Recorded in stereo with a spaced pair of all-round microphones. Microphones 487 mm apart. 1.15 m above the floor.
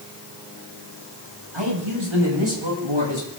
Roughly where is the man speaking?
Right.